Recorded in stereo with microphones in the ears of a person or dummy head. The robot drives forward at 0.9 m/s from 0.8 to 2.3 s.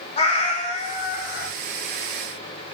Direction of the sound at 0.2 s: 35° left (ahead or behind).